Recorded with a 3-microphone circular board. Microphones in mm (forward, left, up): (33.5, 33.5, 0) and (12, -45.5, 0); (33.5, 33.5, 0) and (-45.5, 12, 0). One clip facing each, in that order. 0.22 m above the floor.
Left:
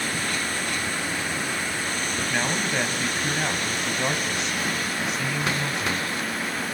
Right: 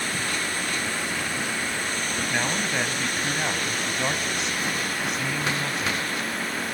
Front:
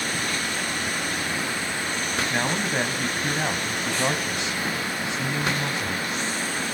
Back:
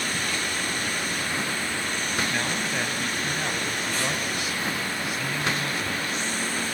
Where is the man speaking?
15° right, 1.6 m.